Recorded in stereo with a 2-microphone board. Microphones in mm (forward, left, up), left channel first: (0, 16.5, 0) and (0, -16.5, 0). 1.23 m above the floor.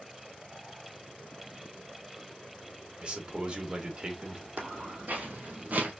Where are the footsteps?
65° right (ahead or behind), 3 m; by 5.9 s 55° right (ahead or behind), 2 m.